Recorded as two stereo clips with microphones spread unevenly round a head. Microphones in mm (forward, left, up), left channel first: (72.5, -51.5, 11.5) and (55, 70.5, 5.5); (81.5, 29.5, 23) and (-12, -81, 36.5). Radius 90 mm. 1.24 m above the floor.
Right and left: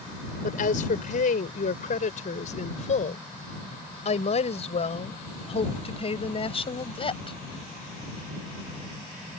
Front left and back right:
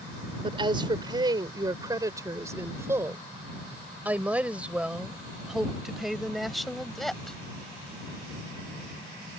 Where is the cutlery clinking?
I don't hear cutlery clinking.